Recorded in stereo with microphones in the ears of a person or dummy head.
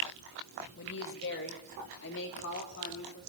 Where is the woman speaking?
55° left (ahead or behind), 1.5 m; by 3.2 s 50° left (ahead or behind), 3.5 m.